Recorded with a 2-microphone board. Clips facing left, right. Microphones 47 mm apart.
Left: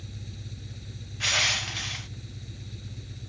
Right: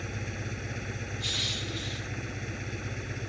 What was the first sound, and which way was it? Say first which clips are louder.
An engine running: right 8 dB; 60° right (ahead or behind).